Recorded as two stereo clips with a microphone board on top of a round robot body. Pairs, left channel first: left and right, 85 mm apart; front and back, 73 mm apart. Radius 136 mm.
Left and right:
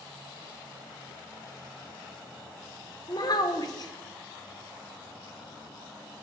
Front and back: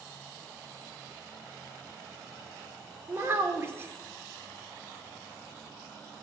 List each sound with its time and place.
3.1 s a child speaking: 125° left, 1.2 m